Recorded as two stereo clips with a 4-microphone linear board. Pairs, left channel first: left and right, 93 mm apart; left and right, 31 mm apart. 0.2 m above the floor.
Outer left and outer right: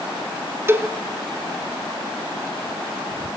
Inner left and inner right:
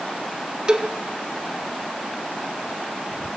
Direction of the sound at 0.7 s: 25° right (ahead or behind).